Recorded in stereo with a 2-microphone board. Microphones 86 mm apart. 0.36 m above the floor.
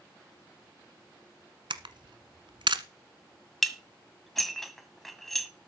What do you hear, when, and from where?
1.7 s a camera shutter: 85° right, 1.2 m
3.6 s dishes clattering: centre (ahead or behind), 1.7 m